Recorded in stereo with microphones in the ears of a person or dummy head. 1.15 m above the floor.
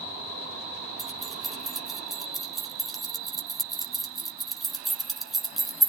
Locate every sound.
1.0 s keys jangling: centre (ahead or behind), 1.4 m